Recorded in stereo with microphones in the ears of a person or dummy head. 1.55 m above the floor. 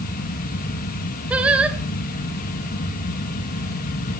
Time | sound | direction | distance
0.0 | a fan | 45° left (ahead or behind) | 2 m
1.3 | singing | 5° right (ahead or behind) | 1.9 m